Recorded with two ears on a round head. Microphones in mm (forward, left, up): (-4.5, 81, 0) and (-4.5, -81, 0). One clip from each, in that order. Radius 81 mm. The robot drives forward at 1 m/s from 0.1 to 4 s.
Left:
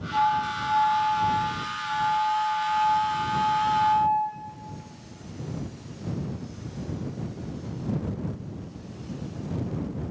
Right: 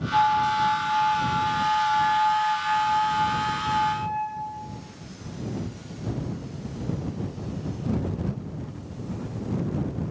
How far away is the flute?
About 1.8 m.